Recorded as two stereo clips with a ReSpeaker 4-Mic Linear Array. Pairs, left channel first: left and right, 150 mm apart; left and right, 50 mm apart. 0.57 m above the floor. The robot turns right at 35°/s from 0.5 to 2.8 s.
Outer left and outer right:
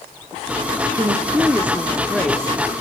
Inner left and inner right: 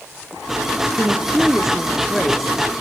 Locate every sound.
0.9 s a woman speaking: 45° right, 0.7 m; by 2.5 s 15° left, 0.7 m